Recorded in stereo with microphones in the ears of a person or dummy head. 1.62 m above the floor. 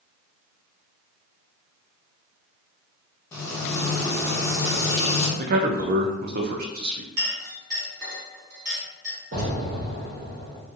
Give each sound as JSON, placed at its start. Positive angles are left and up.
{"t": 3.3, "sound": "frying", "side_deg": 20, "distance_m": 1.1}
{"t": 5.4, "sound": "a man speaking", "side_deg": -55, "distance_m": 0.5}
{"t": 7.2, "sound": "a clink", "side_deg": -55, "distance_m": 1.3}
{"t": 9.3, "sound": "an explosion", "side_deg": -50, "distance_m": 1.2}